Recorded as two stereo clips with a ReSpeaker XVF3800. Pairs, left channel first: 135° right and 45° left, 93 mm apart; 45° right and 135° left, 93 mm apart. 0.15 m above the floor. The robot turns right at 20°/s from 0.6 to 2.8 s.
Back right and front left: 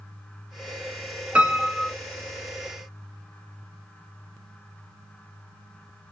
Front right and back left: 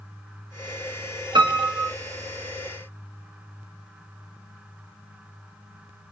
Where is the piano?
120° left, 1.0 m; by 1.9 s 130° left, 1.0 m.